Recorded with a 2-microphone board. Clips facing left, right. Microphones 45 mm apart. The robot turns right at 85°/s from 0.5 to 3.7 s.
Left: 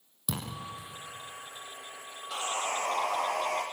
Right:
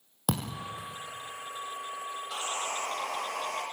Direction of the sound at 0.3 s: 65° right (ahead or behind).